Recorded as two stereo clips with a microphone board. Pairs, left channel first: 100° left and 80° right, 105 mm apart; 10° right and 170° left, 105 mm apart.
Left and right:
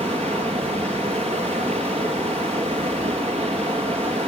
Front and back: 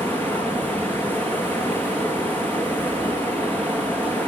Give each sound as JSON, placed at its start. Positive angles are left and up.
{"t": 0.0, "sound": "running water", "azimuth_deg": -85, "distance_m": 4.0}